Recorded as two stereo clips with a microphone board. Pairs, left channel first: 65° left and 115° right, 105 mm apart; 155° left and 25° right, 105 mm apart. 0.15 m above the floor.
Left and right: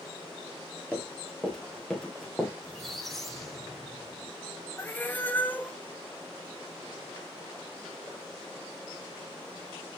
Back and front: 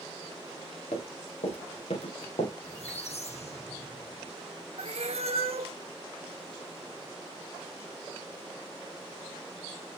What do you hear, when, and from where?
0.9 s running footsteps: 145° left, 4.5 m; by 2.5 s 155° left, 3.5 m
2.6 s a squeak: 155° left, 3 m
4.8 s a cat meowing: 5° right, 0.7 m